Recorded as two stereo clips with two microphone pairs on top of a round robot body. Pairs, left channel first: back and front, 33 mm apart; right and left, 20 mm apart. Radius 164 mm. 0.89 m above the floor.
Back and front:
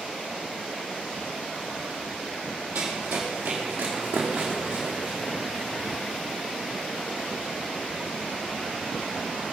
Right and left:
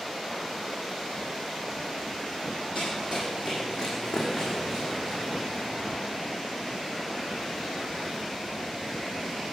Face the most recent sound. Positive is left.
turn(degrees=15)